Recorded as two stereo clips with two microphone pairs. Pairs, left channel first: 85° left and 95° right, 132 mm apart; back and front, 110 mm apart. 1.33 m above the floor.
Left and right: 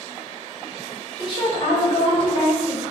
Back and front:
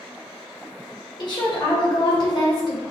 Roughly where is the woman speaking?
Behind left.